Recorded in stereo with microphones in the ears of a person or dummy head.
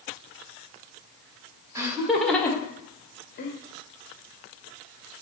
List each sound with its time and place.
1.8 s laughter: 15° right (ahead or behind), 0.7 m; by 3.5 s 50° left (ahead or behind), 0.9 m